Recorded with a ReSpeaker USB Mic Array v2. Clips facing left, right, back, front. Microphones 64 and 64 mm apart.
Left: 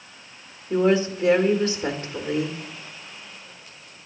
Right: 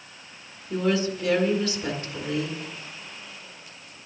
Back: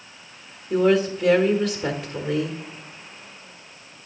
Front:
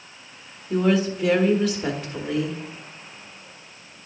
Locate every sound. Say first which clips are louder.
0.7 s a woman speaking: left 5 dB, back 2 dB; 85° left, 1.2 m